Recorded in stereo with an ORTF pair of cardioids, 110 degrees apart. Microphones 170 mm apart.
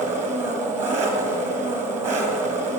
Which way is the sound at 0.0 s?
45° right.